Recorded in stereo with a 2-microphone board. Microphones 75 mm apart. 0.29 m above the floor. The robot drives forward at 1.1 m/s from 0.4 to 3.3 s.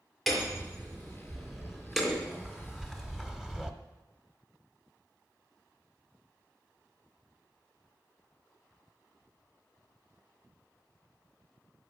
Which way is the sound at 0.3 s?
Centre (ahead or behind).